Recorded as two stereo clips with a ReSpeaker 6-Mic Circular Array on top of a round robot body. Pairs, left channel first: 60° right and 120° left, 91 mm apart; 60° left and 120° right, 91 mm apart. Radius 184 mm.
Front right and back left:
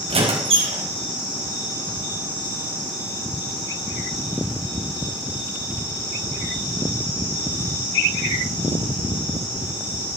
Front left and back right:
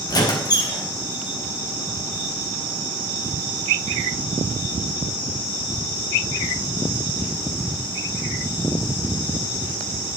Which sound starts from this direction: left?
A squeak, at 0.1 s.